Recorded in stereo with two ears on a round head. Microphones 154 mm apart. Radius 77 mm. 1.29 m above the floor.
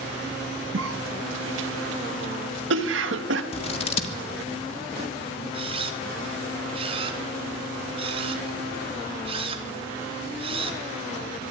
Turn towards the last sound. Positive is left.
turn(degrees=-30)  # may be behind; listen again after turning